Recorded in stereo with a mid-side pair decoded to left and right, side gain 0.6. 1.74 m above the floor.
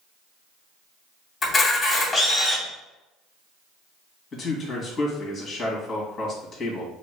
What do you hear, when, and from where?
1.4 s a camera shutter: 25° left, 2.5 m
4.3 s a man speaking: 35° left, 2 m